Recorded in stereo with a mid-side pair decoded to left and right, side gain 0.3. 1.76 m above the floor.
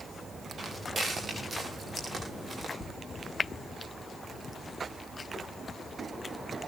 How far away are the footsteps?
About 8.5 m.